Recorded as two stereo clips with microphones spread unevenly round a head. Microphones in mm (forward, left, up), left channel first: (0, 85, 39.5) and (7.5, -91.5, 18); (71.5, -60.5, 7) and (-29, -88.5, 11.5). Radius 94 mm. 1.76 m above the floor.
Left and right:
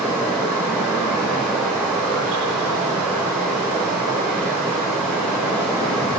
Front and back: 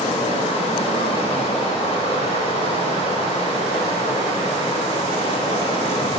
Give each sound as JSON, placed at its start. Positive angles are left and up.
{"t": 0.0, "sound": "running water", "azimuth_deg": 5, "distance_m": 3.0}